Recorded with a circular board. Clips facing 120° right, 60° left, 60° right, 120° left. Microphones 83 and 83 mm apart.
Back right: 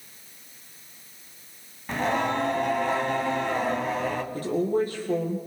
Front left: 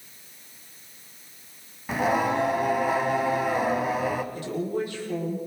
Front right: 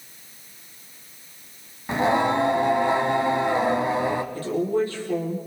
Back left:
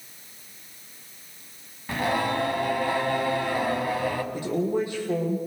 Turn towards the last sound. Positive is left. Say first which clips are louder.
# back right 4 dB, front right 1 dB
turn(degrees=-165)